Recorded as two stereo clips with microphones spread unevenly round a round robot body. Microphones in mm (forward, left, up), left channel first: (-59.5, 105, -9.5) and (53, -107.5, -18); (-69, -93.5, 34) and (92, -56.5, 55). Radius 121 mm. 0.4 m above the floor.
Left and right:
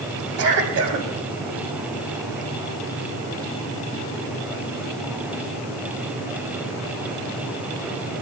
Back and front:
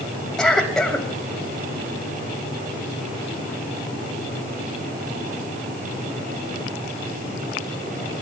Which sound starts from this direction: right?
A cough, at 0.4 s.